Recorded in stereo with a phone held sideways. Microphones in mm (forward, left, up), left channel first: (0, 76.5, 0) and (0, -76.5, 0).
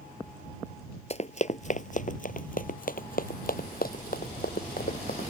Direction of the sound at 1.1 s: 40° left (ahead or behind).